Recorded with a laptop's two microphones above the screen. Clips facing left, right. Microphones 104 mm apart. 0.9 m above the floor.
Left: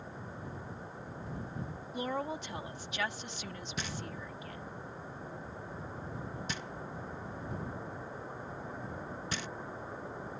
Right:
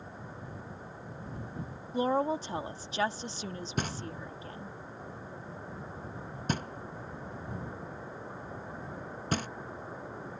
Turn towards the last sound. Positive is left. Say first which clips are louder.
# right 5 dB
turn(degrees=-50)  # may be behind; listen again after turning